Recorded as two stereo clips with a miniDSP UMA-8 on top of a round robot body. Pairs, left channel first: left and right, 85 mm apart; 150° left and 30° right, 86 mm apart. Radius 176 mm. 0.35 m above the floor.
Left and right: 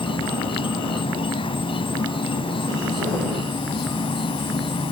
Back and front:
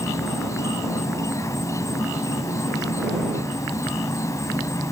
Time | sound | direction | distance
0.0 | an insect | 95° left | ?